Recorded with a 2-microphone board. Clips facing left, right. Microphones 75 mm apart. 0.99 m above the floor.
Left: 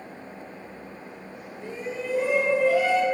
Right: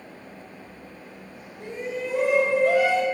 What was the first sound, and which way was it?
A shout, 70° right (ahead or behind).